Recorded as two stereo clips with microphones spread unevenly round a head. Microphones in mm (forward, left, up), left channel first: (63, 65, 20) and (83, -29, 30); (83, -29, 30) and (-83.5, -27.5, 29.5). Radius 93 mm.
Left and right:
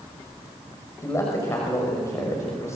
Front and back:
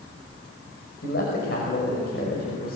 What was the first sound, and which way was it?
A man speaking, 40° left.